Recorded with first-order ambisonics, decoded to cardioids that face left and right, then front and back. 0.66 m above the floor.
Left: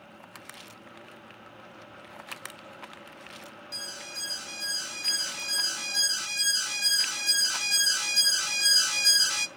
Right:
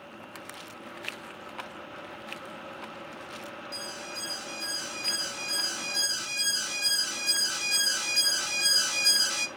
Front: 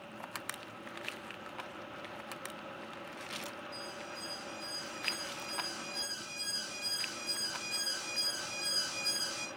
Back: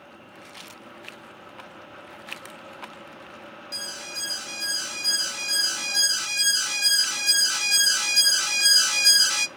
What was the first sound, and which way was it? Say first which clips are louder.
An alarm: left 2 dB, back 10 dB; 170° left.